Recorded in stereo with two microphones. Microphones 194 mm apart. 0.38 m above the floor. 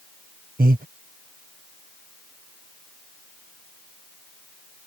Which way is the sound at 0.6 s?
45° right (ahead or behind).